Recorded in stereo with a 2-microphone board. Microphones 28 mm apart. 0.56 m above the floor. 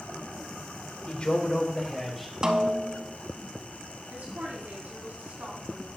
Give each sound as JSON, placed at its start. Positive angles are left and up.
{"t": 1.1, "sound": "a man speaking", "side_deg": 50, "distance_m": 1.4}
{"t": 2.4, "sound": "a snare drum", "side_deg": -25, "distance_m": 0.9}
{"t": 4.1, "sound": "a woman speaking", "side_deg": -75, "distance_m": 3.5}